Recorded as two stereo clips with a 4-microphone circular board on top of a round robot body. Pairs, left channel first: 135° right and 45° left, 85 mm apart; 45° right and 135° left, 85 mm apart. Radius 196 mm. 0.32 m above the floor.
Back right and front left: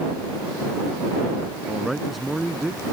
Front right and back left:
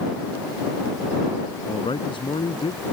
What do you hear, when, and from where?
1.7 s a man speaking: 45° right